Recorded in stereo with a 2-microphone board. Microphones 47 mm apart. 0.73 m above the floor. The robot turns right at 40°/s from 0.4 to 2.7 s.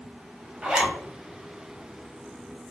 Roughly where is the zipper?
Right.